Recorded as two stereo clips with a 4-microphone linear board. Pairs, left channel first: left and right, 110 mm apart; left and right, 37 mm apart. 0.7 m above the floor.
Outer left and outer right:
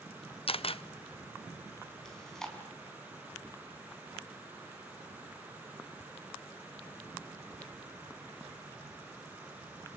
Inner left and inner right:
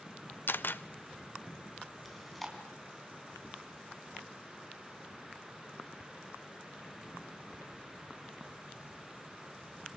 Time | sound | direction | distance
0.5 | a camera shutter | 60° left (ahead or behind) | 0.7 m
2.0 | chewing | 5° left (ahead or behind) | 4.5 m